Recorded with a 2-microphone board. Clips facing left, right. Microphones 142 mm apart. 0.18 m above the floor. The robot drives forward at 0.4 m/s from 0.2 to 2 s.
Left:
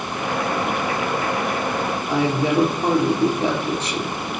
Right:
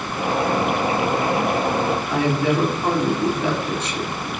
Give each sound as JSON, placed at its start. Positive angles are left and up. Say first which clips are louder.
{"t": 2.1, "sound": "a woman speaking", "louder": "left 3 dB", "side_deg": 30, "distance_m": 3.5}